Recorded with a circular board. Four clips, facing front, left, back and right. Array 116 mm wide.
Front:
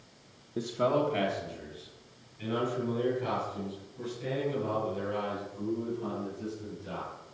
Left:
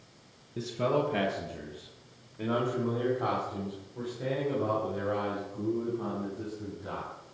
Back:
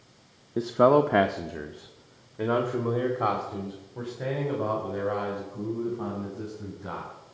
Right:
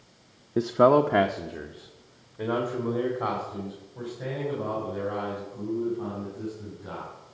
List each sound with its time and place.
0.6 s a man speaking: 110° right, 0.5 m; by 7.1 s straight behind, 5 m